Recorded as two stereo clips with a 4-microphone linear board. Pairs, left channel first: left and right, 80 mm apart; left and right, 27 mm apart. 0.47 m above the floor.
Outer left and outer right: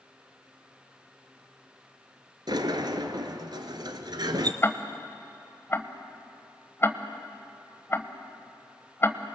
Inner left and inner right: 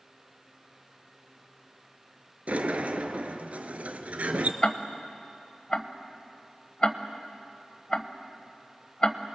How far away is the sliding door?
About 1.2 m.